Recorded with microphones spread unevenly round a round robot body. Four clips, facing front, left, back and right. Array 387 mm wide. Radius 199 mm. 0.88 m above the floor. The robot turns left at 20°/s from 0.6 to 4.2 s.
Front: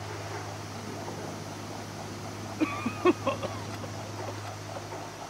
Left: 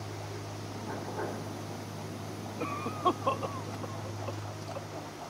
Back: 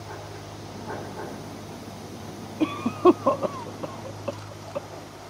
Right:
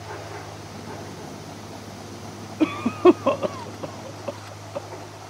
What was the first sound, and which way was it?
A cough, 100° right.